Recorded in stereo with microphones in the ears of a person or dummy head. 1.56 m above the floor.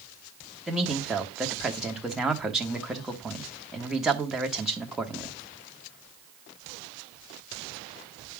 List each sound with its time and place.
0.7 s a man speaking: centre (ahead or behind), 1.4 m